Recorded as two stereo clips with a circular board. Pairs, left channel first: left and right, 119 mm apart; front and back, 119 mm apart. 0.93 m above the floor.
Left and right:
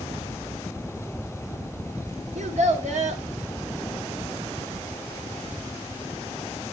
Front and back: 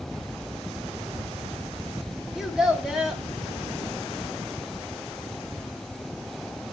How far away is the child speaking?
About 0.8 m.